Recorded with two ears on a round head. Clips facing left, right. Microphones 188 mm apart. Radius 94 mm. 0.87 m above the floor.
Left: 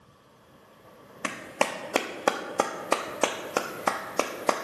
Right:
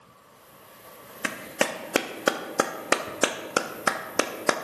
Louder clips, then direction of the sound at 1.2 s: Right 1 dB; 20° right (ahead or behind).